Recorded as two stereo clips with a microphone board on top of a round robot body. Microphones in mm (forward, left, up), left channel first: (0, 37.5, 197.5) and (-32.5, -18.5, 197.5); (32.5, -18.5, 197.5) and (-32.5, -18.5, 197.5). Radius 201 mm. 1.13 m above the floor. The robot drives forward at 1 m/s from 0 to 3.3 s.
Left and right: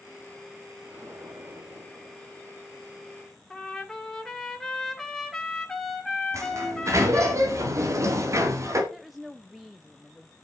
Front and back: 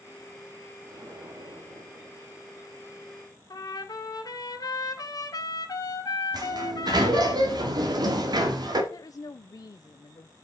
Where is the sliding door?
165° right, 2 m.